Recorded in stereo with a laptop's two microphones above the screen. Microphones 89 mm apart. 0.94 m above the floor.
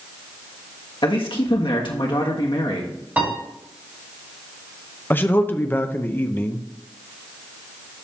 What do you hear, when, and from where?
1.0 s a man speaking: 60° left (ahead or behind), 1.4 m
3.2 s a piano: 20° right (ahead or behind), 2 m
5.1 s a man speaking: 20° left (ahead or behind), 0.6 m